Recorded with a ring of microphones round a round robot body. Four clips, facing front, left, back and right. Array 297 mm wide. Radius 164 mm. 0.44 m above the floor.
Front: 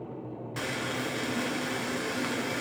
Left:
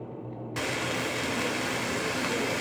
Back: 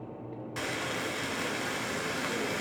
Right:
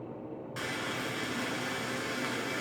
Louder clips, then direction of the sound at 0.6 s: Left 6 dB, front 1 dB; 90° left.